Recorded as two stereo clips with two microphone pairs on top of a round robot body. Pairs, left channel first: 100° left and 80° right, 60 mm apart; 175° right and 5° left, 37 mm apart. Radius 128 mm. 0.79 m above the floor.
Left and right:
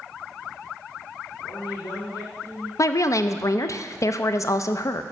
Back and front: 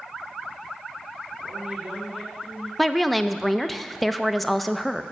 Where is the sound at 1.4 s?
75° left, 2.5 m; by 2.7 s 115° left, 3 m.